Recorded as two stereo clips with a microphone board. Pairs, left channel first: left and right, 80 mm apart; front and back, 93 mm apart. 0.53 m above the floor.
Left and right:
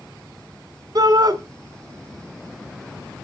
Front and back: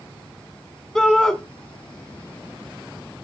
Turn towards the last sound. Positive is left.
turn(degrees=-90)